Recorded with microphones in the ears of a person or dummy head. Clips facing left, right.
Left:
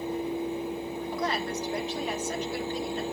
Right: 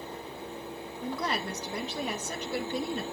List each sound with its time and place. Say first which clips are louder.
1.0 s a woman speaking: even; 75° right (ahead or behind), 1.5 m